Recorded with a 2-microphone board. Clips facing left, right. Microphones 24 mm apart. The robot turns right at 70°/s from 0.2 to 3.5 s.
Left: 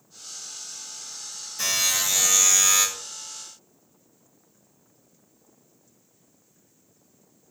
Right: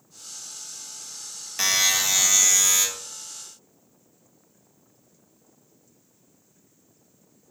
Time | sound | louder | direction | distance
1.6 | a buzzer | right 3 dB | 60° right | 0.5 m